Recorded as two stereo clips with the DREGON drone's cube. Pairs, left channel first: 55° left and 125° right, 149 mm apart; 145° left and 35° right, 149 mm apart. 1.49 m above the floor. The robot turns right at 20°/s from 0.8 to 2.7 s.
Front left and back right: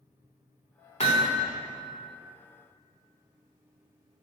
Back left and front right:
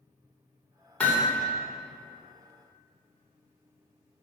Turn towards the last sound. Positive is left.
turn(degrees=105)